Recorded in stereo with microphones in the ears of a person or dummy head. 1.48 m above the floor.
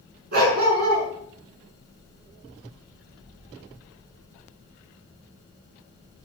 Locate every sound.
0.3 s a dog barking: 50° right (ahead or behind), 7 m